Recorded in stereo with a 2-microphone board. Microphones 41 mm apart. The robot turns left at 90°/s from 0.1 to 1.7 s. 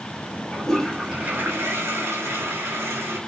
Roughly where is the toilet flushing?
Ahead left.